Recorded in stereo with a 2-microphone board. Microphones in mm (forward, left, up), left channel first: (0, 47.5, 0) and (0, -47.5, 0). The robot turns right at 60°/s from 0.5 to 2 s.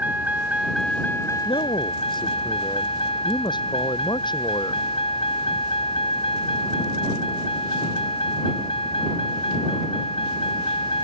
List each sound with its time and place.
0.0 s a vehicle: 15° right; by 11.1 s 75° left
1.4 s a man speaking: 95° left; by 4.8 s 125° left